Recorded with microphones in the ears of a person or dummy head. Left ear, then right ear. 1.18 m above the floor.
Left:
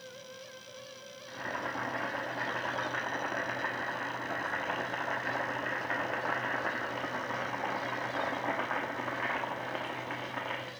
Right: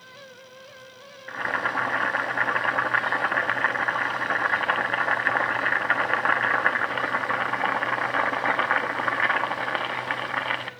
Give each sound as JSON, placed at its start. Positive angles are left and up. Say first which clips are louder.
{"t": 1.3, "sound": "boiling", "louder": "right 11 dB", "side_deg": -65, "distance_m": 1.0}